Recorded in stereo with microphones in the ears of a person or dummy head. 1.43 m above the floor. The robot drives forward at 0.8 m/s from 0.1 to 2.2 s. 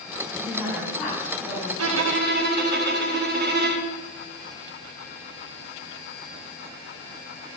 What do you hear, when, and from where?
0.4 s a woman speaking: 15° right (ahead or behind), 1.2 m; by 1.7 s 5° right (ahead or behind), 2.5 m
1.8 s a violin: 80° right, 0.5 m; by 3.9 s 60° right (ahead or behind), 0.6 m